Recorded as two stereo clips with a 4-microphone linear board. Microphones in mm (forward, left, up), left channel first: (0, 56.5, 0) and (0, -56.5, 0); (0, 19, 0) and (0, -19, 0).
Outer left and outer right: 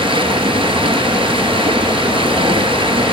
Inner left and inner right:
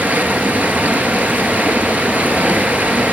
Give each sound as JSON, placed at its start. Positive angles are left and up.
{"t": 0.0, "sound": "running water", "side_deg": -50, "distance_m": 1.3}